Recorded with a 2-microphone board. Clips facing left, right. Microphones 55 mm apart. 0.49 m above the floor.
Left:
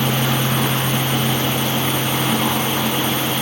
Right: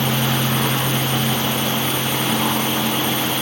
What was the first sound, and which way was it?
Only background noise.